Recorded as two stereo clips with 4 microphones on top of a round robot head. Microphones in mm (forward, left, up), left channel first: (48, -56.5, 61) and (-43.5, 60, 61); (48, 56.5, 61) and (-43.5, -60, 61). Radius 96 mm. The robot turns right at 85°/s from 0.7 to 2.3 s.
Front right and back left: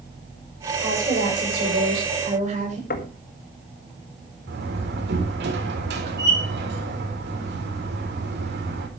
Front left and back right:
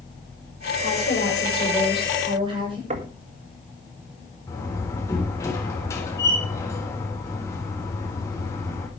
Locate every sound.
0.8 s a woman speaking: 45° left, 8.5 m; by 2.8 s 175° left, 8.5 m
2.9 s knocking: 80° right, 1.9 m
4.5 s a door slam: 125° left, 3.5 m